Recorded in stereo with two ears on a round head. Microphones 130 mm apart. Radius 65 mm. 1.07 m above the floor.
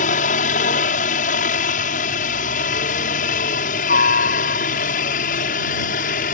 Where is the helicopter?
60° left (ahead or behind); by 6.3 s 65° left (ahead or behind).